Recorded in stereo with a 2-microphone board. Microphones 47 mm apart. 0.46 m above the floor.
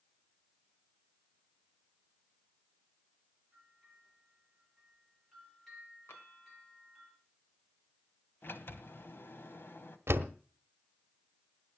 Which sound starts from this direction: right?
A door slam, at 10.1 s.